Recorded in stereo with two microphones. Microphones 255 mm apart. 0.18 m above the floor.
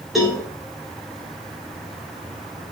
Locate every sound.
0.1 s a cowbell: centre (ahead or behind), 3.5 m